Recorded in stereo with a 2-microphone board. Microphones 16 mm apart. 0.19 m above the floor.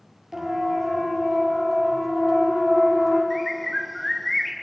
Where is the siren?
25° right (ahead or behind), 3.5 m; by 3.2 s 10° right (ahead or behind), 6.5 m.